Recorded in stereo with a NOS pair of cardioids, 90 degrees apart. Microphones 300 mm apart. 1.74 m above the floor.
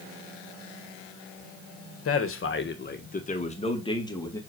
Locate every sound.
2.0 s a man speaking: 55° left, 1.6 m; by 4.4 s 10° left, 2 m